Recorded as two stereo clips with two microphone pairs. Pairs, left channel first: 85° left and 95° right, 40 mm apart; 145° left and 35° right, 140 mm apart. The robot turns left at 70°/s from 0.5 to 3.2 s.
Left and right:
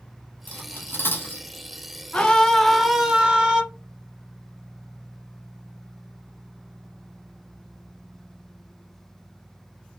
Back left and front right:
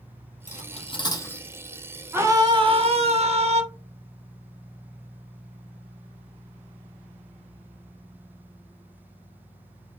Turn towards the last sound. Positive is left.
turn(degrees=-40)